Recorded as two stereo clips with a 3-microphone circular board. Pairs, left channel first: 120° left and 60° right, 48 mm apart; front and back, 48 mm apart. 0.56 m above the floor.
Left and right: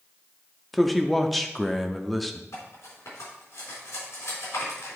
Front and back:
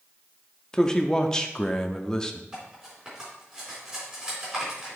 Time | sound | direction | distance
0.7 | a man speaking | 40° left | 0.6 m
2.5 | cutlery clinking | 110° left | 3.5 m